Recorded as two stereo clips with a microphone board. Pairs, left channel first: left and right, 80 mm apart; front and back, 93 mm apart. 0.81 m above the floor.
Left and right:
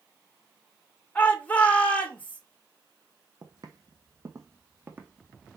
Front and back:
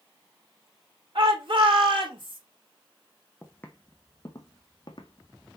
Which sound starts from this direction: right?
Footsteps, at 3.4 s.